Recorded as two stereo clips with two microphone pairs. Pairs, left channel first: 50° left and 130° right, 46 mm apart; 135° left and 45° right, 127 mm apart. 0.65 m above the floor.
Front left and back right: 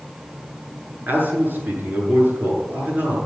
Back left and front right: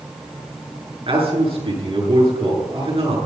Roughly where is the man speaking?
Right.